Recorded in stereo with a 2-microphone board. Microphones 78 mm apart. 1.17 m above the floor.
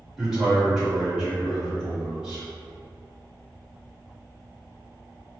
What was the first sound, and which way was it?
A man speaking, 10° right (ahead or behind).